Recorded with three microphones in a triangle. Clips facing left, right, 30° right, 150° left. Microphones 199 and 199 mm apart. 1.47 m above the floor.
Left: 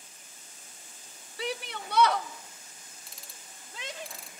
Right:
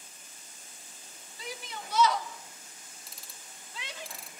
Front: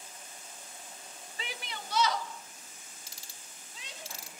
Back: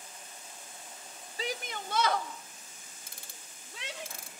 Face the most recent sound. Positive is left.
turn(degrees=180)